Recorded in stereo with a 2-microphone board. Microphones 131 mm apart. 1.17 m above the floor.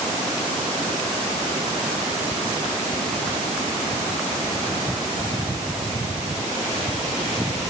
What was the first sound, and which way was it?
Only background noise.